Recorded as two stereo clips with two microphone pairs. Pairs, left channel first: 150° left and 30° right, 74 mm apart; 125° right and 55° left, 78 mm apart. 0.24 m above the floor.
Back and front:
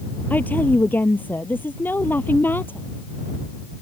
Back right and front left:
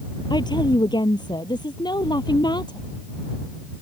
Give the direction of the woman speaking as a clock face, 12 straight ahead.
5 o'clock.